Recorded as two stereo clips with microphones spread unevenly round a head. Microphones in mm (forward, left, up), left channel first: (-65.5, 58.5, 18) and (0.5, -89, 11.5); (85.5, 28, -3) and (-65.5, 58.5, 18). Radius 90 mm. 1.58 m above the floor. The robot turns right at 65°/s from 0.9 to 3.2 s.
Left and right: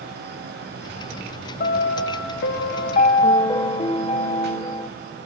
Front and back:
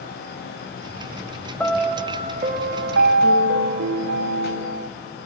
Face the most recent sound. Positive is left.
turn(degrees=175)